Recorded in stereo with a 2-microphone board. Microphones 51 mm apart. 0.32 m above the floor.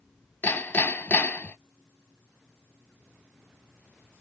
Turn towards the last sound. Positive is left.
turn(degrees=40)  # may be behind; listen again after turning